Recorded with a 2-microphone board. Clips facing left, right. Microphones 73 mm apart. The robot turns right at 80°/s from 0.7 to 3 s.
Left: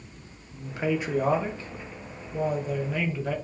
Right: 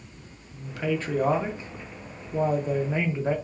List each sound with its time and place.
0.5 s a man speaking: 135° left, 0.7 m; by 3.4 s 40° right, 0.7 m